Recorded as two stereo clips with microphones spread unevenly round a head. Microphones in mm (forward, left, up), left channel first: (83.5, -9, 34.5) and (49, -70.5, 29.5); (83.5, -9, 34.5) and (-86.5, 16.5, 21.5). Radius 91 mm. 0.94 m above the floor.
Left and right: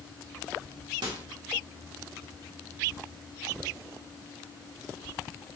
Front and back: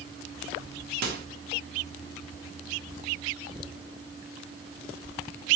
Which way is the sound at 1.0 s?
150° right.